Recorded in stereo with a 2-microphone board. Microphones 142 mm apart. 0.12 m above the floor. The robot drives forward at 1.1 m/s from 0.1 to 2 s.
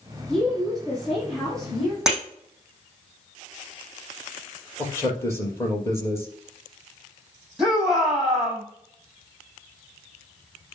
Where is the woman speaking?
5° left (ahead or behind), 4.5 m.